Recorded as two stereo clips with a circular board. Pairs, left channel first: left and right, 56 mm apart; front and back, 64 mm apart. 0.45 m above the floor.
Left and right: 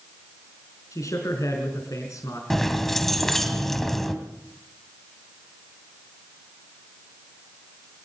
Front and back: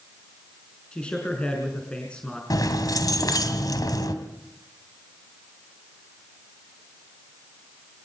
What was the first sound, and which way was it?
A man speaking, 75° left.